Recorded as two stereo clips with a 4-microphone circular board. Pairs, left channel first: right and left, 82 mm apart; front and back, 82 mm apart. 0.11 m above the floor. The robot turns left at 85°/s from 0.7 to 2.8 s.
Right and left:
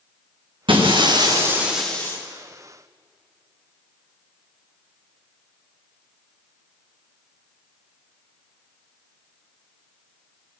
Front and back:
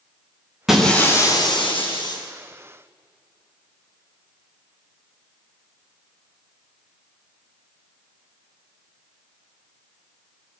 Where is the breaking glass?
95° left, 7 m; by 2.2 s 30° right, 7 m.